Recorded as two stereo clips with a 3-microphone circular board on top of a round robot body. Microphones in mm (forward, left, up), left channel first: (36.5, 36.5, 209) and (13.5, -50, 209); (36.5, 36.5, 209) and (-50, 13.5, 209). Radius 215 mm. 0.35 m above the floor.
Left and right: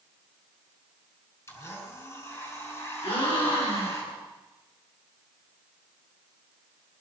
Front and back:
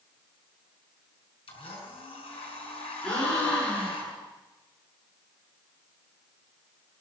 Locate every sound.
1.5 s a blender: 15° left, 5.5 m
3.0 s a gasp: 95° left, 6.5 m